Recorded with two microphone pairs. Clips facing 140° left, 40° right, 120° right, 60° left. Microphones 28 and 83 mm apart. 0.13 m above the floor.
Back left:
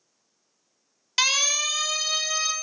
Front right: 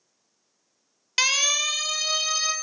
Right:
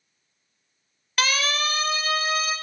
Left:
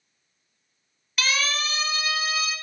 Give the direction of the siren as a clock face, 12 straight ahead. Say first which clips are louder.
Even, right 2 dB; 4 o'clock.